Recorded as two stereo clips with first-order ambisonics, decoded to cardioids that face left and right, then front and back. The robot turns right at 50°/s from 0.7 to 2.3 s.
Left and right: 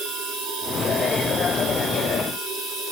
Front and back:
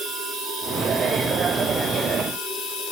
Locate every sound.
0.0 s running water: 120° right, 3.5 m; by 2.9 s 40° right, 3.5 m